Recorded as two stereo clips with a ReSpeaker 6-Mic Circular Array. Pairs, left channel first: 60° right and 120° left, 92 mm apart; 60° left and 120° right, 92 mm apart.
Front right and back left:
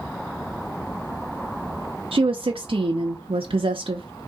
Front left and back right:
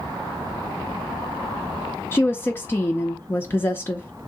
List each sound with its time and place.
2.1 s a woman speaking: 125° left, 0.6 m